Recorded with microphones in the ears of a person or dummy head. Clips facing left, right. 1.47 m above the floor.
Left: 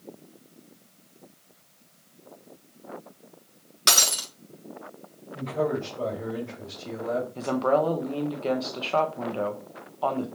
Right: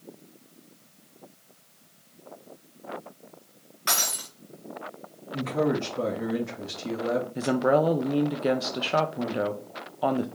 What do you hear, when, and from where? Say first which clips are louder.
3.9 s breaking glass: left 3 dB; 50° left (ahead or behind), 1.4 m
5.3 s a man speaking: right 2 dB; 75° right (ahead or behind), 1.9 m
7.3 s a woman speaking: right 1 dB; 20° right (ahead or behind), 0.5 m